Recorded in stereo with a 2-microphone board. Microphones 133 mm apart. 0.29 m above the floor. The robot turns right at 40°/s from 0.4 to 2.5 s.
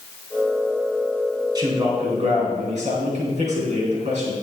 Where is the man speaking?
150° right, 3.5 m; by 4.3 s 110° right, 3.5 m.